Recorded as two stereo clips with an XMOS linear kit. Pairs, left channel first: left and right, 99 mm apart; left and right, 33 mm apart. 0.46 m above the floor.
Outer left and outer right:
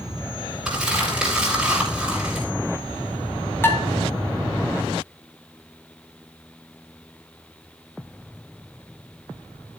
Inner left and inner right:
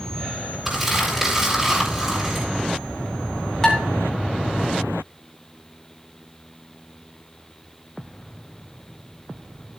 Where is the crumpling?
10° right (ahead or behind), 6 m.